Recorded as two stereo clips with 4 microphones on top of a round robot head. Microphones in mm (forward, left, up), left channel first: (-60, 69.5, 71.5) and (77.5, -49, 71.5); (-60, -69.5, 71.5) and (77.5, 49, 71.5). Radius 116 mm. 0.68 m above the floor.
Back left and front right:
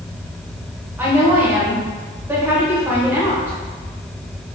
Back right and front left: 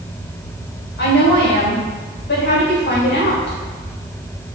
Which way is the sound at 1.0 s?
120° right.